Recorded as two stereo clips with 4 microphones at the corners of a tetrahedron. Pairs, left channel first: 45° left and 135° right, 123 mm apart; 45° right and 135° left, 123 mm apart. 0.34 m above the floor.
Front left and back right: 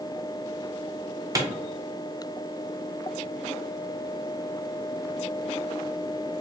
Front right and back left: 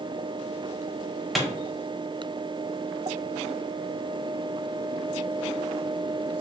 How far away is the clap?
About 0.9 m.